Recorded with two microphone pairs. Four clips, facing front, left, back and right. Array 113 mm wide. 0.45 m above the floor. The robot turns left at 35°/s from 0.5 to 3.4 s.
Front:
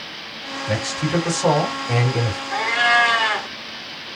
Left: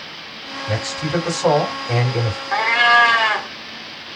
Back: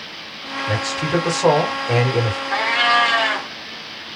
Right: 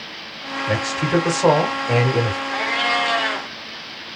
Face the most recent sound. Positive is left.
turn(degrees=85)